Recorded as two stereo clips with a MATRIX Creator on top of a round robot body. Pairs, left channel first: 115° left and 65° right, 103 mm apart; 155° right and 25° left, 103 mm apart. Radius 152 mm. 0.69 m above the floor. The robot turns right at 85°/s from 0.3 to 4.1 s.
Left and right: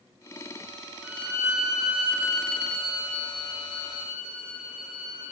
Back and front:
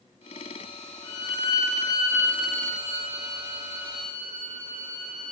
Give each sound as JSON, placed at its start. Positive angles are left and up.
{"t": 1.0, "sound": "a violin", "azimuth_deg": -150, "distance_m": 1.2}